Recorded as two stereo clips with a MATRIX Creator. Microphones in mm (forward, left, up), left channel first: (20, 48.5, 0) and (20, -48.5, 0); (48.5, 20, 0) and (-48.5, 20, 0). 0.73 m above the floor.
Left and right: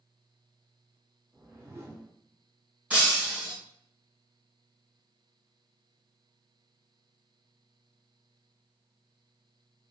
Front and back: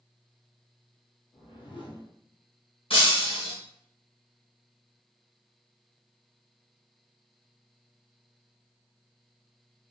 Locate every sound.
1.3 s a whoosh: 25° right, 0.7 m
2.9 s breaking glass: 15° right, 1.6 m